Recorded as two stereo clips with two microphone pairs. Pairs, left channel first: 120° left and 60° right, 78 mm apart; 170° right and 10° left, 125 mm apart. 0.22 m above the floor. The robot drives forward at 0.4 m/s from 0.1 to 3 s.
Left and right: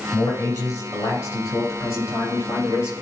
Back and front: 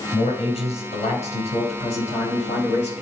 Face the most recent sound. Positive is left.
turn(degrees=165)